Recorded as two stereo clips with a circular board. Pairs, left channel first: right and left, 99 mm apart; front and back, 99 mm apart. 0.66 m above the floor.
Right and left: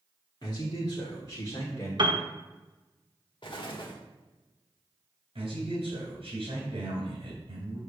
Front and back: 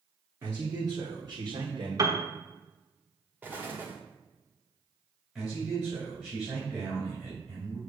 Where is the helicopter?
I don't hear a helicopter.